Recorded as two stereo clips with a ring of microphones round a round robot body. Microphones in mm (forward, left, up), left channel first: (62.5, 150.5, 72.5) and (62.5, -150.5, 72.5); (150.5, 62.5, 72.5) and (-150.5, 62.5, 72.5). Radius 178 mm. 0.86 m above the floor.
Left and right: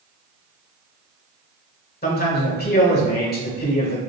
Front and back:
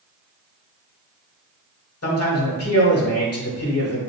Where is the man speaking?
35° left, 1.8 m.